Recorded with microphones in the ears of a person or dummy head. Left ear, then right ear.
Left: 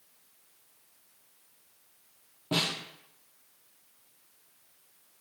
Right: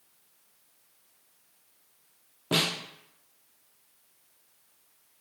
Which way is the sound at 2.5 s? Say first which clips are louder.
Right 3 dB; 20° right (ahead or behind).